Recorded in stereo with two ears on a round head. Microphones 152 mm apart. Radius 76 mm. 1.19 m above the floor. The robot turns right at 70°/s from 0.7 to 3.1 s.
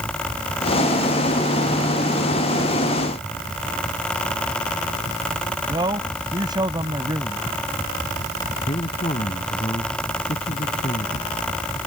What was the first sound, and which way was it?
A man speaking, 25° right (ahead or behind).